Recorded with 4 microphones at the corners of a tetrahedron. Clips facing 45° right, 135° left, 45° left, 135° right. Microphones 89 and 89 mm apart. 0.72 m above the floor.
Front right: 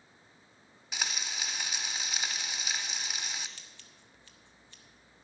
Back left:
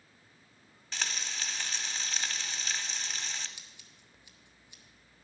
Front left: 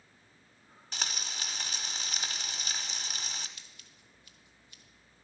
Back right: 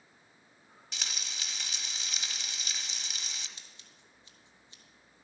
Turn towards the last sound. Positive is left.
turn(degrees=-165)